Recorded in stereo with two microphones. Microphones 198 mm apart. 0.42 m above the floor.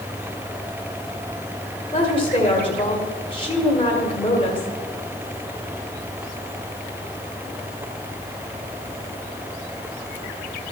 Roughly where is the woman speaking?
Left.